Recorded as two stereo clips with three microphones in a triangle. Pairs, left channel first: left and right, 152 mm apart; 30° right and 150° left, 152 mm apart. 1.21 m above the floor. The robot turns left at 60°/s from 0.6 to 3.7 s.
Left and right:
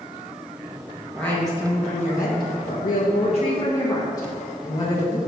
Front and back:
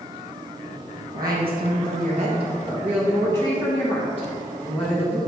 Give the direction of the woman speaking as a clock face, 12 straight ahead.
6 o'clock.